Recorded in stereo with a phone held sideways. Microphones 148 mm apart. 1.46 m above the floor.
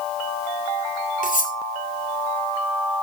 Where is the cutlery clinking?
65° left (ahead or behind), 2.5 m.